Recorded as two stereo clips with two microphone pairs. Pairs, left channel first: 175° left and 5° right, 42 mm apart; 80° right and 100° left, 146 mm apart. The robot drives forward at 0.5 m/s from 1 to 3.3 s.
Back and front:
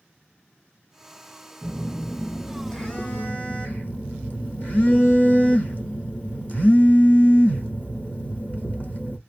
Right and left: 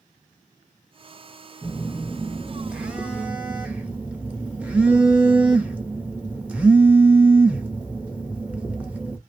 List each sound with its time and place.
1.6 s a phone buzzing: 10° left, 0.7 m; by 9.2 s 175° left, 0.8 m